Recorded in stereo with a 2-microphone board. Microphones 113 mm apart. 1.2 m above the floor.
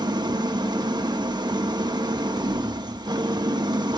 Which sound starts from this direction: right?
An engine running, at 0.0 s.